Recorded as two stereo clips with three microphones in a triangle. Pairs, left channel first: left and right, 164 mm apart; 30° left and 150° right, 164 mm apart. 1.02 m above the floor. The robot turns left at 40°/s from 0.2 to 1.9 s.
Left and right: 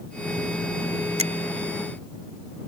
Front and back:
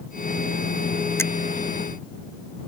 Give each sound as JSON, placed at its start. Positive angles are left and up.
{"t": 1.2, "sound": "a finger snap", "azimuth_deg": -45}